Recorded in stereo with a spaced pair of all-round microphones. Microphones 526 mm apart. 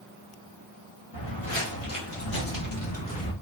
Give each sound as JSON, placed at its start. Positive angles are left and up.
{"t": 1.1, "sound": "footsteps", "side_deg": 60, "distance_m": 3.0}